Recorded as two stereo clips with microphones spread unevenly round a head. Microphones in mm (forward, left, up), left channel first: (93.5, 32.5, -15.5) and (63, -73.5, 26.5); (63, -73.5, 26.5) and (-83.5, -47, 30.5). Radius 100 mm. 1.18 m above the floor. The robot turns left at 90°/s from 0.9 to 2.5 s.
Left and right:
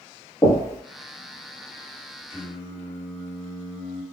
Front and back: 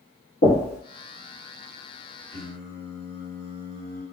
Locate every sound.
0.4 s knocking: 5° left, 1.1 m
2.3 s singing: 160° left, 1.5 m; by 4.0 s 145° left, 1.5 m